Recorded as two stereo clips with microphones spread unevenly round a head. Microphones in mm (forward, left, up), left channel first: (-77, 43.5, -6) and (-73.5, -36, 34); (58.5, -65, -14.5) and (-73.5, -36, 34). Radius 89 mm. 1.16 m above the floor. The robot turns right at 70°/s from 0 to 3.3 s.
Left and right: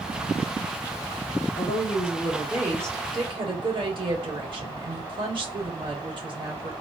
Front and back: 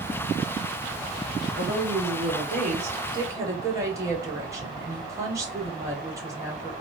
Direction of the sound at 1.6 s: 120° left.